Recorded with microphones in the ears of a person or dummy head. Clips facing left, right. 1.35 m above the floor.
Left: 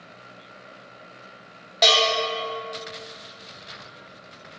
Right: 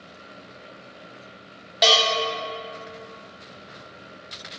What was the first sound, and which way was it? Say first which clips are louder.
A bell: even; 5° right (ahead or behind).